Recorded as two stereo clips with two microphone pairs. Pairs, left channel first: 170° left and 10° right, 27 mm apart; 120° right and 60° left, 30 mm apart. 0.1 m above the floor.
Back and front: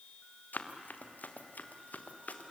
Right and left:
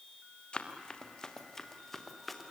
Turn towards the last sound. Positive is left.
turn(degrees=150)